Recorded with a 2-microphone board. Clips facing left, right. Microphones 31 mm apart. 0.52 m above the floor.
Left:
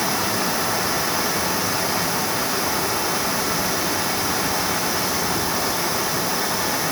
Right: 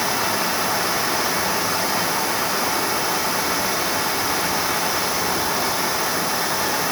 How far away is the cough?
No cough in this recording.